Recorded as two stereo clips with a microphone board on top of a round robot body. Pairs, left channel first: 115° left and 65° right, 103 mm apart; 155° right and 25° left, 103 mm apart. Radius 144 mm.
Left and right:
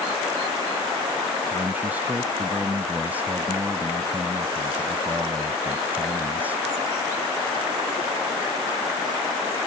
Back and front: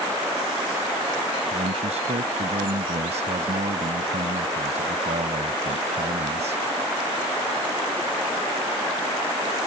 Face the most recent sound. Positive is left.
turn(degrees=10)